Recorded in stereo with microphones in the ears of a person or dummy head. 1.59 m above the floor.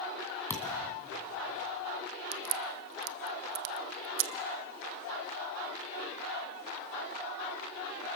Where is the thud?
15° left (ahead or behind), 2.0 m.